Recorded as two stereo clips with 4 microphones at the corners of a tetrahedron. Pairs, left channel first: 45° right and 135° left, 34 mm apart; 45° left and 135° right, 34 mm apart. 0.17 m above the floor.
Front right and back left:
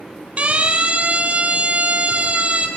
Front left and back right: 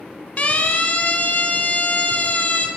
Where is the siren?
90° left, 5.5 m; by 2.7 s 85° left, 6.5 m.